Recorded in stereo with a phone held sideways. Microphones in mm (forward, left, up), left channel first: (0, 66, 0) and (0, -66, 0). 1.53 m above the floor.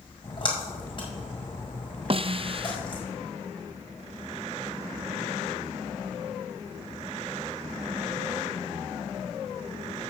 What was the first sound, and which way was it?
A splash, 40° left (ahead or behind).